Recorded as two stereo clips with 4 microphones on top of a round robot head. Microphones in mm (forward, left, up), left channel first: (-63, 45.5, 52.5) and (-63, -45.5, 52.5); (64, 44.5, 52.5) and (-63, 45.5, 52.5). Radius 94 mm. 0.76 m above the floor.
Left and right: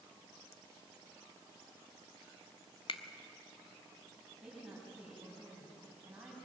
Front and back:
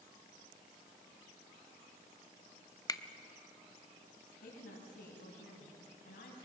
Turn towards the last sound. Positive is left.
turn(degrees=-10)